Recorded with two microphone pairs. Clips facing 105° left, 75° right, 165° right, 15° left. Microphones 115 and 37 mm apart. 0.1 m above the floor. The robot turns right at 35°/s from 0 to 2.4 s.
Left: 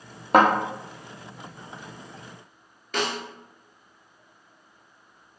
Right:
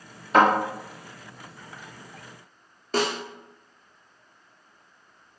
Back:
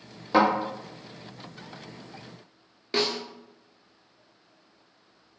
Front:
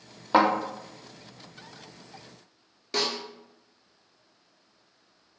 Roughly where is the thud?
Left.